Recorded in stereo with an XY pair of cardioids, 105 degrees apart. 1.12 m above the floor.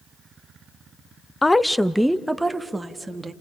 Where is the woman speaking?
15° left, 0.6 m; by 3.3 s 20° right, 1.6 m.